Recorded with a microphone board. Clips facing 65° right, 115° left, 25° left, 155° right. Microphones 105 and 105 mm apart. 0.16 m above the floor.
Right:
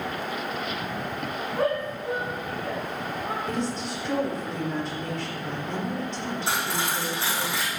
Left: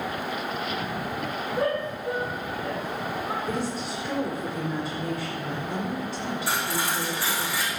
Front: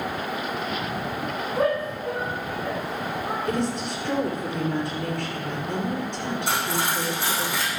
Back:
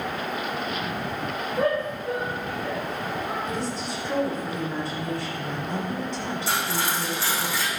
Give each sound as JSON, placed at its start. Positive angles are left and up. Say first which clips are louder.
{"t": 1.6, "sound": "a shout", "louder": "right 1 dB, front 1 dB", "azimuth_deg": -20, "distance_m": 6.5}
{"t": 3.5, "sound": "a woman speaking", "louder": "even, front 3 dB", "azimuth_deg": 30, "distance_m": 4.5}
{"t": 6.5, "sound": "cutlery clinking", "louder": "even, front 1 dB", "azimuth_deg": 0, "distance_m": 5.0}